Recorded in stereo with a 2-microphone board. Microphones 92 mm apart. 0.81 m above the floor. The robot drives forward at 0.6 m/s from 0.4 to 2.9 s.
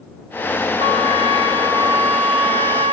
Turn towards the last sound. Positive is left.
turn(degrees=-75)  # may be behind; listen again after turning